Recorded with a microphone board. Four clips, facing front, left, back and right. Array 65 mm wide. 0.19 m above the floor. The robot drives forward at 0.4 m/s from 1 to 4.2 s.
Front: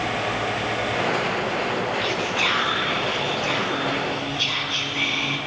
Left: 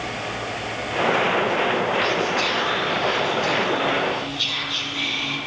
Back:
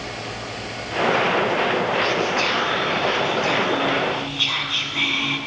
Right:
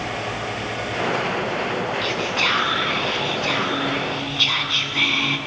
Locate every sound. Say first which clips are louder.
2.0 s whispering: left 1 dB, back 3 dB; 65° right, 1.9 m; by 5.4 s 100° right, 1.8 m